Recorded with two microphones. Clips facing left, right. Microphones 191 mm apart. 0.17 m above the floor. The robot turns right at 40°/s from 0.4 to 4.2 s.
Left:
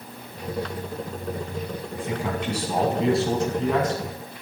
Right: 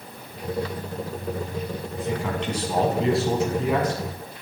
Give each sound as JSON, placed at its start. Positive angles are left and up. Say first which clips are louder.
{"t": 1.9, "sound": "a man speaking", "louder": "right 1 dB", "side_deg": 15, "distance_m": 1.5}